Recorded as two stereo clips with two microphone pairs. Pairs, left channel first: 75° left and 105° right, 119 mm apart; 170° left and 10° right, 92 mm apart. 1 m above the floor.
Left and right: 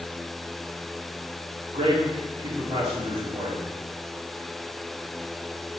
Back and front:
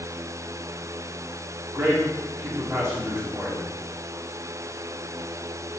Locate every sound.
1.7 s a man speaking: 70° right, 3 m